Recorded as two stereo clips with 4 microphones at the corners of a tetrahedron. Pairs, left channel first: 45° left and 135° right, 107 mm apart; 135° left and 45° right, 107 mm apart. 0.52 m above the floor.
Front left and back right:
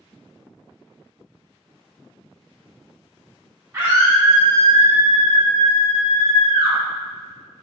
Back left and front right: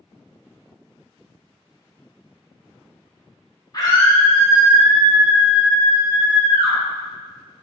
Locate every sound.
3.7 s a scream: 170° left, 1.2 m; by 6.8 s 75° right, 2.5 m